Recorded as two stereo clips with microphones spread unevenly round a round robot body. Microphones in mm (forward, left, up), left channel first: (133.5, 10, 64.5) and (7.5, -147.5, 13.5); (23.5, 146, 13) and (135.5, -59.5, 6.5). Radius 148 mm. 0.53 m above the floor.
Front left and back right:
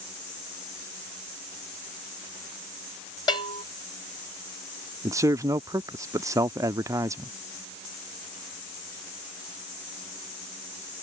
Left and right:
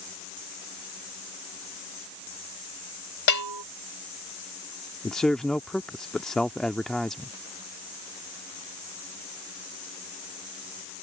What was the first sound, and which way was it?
A bell, 130° left.